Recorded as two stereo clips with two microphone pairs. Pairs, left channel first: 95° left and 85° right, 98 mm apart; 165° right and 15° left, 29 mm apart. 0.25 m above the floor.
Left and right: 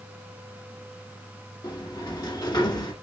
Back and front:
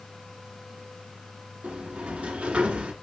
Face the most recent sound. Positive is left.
turn(degrees=60)